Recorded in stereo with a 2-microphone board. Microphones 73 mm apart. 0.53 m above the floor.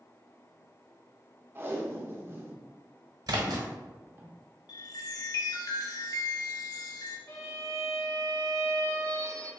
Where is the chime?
70° left (ahead or behind), 0.7 m.